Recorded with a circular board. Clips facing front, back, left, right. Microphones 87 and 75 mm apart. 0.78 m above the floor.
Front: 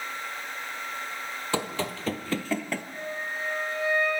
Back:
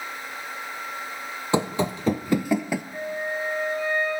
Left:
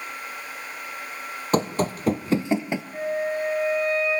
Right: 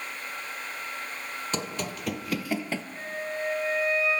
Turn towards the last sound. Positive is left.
turn(degrees=120)